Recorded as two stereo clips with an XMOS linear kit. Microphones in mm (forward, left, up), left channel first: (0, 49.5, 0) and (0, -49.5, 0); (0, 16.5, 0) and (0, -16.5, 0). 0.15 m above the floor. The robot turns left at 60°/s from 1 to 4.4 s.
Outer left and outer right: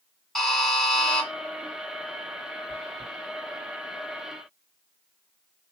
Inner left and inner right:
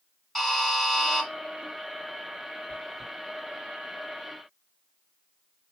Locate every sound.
0.3 s a buzzer: 5° left (ahead or behind), 1.7 m; by 1.3 s 10° left (ahead or behind), 1.7 m
2.7 s chewing: 10° left (ahead or behind), 2.5 m; by 3.1 s 10° right (ahead or behind), 2.5 m